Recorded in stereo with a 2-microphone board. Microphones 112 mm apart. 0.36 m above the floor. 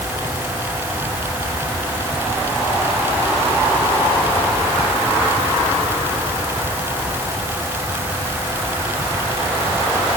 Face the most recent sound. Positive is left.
No sound to turn to.